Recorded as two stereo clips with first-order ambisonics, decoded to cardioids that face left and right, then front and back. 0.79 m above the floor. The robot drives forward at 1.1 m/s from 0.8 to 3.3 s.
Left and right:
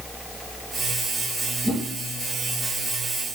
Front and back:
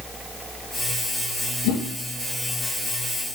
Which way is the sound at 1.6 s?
Straight ahead.